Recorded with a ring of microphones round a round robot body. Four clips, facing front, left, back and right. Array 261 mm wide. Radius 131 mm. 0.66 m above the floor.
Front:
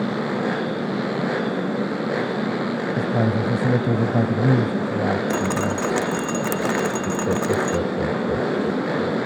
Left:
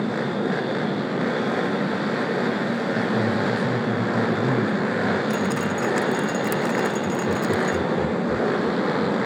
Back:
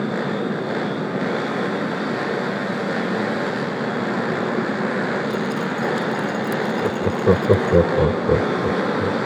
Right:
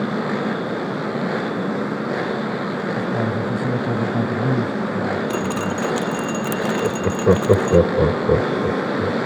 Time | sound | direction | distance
3.0 | a man speaking | 15° right | ?
5.3 | dripping | 15° right | ?
6.8 | laughter | 125° right | ?